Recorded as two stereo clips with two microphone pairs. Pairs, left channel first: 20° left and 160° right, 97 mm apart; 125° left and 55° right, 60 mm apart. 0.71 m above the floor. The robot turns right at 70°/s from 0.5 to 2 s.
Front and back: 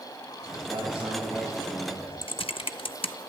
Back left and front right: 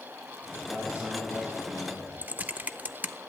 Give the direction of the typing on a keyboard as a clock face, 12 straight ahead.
12 o'clock.